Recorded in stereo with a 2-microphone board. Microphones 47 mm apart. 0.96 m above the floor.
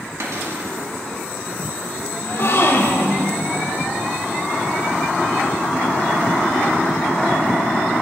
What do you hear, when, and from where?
0.2 s a cupboard door: 70° right (ahead or behind), 2 m
2.2 s a gasp: 65° left (ahead or behind), 1.3 m